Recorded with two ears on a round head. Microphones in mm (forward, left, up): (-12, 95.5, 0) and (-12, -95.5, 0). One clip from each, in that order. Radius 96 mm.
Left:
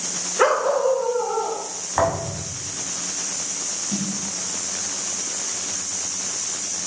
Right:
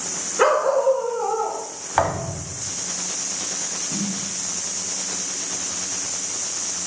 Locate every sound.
0.4 s a dog barking: 10° left (ahead or behind), 0.7 m; by 1.6 s 30° right (ahead or behind), 1.4 m
2.0 s a thud: 35° right (ahead or behind), 1.3 m
3.9 s a snare drum: 45° left (ahead or behind), 1.4 m